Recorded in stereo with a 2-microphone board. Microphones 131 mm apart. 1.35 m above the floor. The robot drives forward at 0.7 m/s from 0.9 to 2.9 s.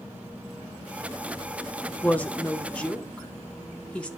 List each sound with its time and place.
2.0 s a woman speaking: 15° left (ahead or behind), 1.2 m; by 4.1 s 10° left (ahead or behind), 1.8 m